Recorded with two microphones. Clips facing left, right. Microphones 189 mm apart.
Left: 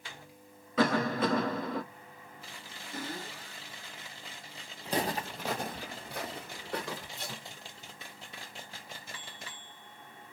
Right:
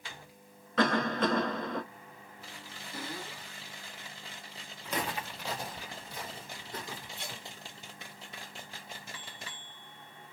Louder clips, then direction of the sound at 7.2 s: Left 2 dB; 40° left (ahead or behind).